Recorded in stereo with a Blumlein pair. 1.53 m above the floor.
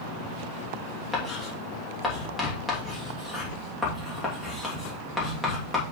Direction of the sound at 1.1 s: 15° left.